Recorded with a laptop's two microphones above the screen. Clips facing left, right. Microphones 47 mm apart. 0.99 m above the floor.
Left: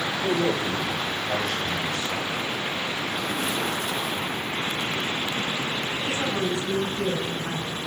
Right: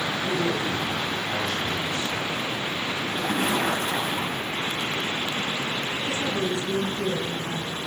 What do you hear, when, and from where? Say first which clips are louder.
0.2 s a man speaking: left 3 dB; 70° left (ahead or behind), 4.5 m
3.1 s a splash: right 2 dB; 45° right (ahead or behind), 4.5 m
6.0 s a woman speaking: left 1 dB; 75° left (ahead or behind), 7 m